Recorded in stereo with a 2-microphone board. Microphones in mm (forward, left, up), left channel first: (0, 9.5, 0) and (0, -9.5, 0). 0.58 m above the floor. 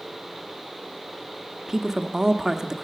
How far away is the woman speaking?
About 0.8 m.